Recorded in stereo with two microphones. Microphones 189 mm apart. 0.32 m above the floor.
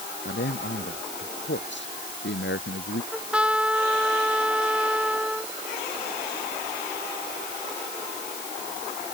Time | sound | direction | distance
0.2 | a man speaking | 75° left (ahead or behind) | ?
3.1 | a trumpet | 5° right (ahead or behind) | ?